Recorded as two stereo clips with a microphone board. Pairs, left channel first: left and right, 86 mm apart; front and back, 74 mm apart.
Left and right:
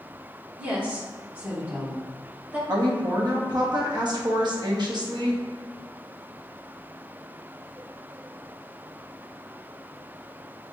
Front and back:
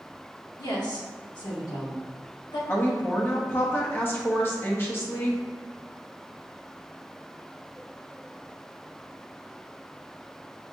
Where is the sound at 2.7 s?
60° right, 1.1 m.